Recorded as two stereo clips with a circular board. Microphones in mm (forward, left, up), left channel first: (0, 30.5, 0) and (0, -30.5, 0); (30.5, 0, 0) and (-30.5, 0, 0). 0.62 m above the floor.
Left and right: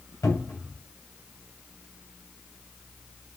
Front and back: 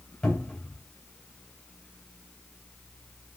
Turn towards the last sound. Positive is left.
turn(degrees=70)